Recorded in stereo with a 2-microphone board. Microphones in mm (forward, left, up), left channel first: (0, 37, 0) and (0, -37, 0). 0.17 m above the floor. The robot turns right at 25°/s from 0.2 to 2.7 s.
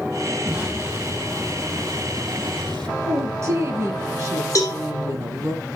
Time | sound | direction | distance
0.5 | an explosion | 150° right | 4.5 m
3.0 | a woman speaking | 45° right (ahead or behind) | 1.7 m
4.5 | a cowbell | 45° left (ahead or behind) | 2 m